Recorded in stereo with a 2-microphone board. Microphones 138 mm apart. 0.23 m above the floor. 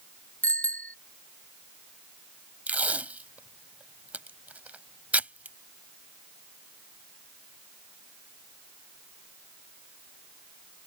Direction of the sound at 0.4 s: 10° left (ahead or behind).